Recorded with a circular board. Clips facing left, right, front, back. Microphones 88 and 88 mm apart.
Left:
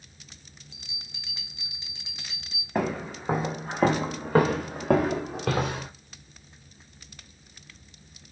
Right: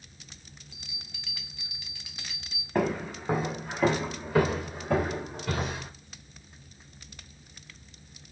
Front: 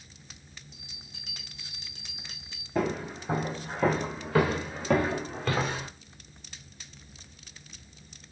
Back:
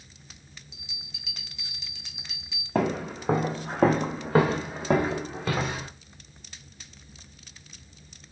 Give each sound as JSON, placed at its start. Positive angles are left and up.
{"t": 0.7, "sound": "a bell", "azimuth_deg": 30, "distance_m": 0.8}
{"t": 2.8, "sound": "footsteps", "azimuth_deg": 175, "distance_m": 1.2}